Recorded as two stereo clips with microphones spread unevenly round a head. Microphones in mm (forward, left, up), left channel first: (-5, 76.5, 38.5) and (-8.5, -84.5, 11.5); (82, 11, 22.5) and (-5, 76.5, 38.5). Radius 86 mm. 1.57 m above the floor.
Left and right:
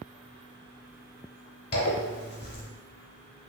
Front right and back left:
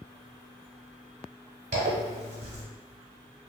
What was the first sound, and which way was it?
A zipper, 130° left.